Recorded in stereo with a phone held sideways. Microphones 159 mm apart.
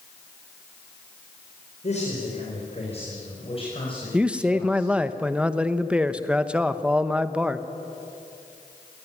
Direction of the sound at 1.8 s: 45° left (ahead or behind).